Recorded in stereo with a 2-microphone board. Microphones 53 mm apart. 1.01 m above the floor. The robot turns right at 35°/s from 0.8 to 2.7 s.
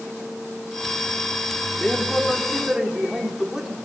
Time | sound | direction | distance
1.8 | a man speaking | 160° left | 2.5 m